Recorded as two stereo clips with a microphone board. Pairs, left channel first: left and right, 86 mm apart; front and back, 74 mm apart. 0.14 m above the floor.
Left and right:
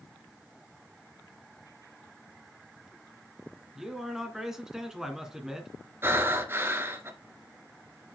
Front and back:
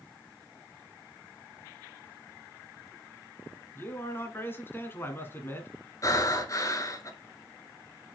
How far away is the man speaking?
About 1.9 m.